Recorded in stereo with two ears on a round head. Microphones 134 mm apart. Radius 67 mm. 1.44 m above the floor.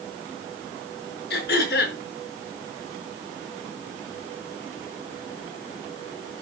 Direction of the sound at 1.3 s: 75° left (ahead or behind).